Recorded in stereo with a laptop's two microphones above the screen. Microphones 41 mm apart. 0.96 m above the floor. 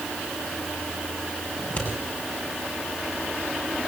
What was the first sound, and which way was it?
Scissors, 35° left (ahead or behind).